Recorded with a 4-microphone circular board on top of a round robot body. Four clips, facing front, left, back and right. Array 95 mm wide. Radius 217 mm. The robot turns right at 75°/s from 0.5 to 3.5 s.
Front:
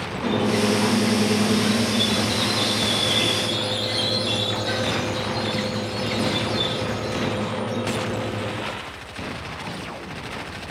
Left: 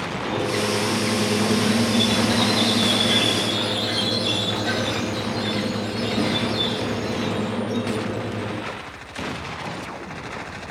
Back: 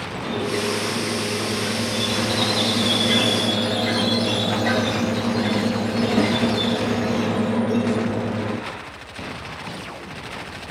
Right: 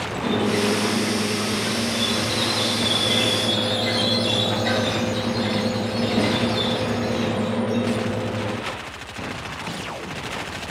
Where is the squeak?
25° right, 1.6 m; by 8.6 s 160° right, 1.6 m.